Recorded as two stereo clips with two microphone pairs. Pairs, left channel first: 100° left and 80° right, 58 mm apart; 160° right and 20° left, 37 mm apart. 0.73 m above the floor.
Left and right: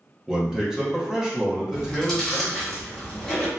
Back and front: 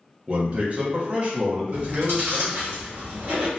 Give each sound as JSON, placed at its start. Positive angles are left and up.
{"t": 0.3, "sound": "a man speaking", "azimuth_deg": 0, "distance_m": 0.8}
{"t": 1.7, "sound": "chewing", "azimuth_deg": 20, "distance_m": 1.2}